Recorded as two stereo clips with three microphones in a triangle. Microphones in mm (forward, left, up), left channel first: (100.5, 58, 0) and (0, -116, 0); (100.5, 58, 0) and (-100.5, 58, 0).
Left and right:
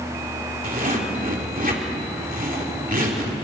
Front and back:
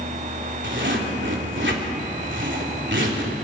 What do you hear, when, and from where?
0.6 s a zipper: 165° right, 3.5 m